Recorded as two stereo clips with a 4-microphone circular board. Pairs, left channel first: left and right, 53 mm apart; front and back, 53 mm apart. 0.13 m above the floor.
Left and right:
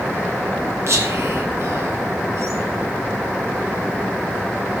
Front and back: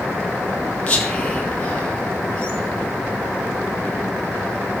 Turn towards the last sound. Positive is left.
turn(degrees=-70)